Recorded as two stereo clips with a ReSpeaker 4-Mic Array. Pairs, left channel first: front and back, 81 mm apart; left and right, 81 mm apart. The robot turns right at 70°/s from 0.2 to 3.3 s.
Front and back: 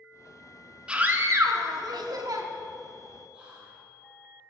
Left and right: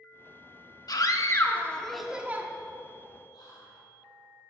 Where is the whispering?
105° left, 3.5 m.